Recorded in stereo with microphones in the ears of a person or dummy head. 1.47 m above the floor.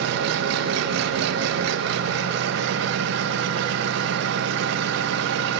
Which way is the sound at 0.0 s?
70° right (ahead or behind).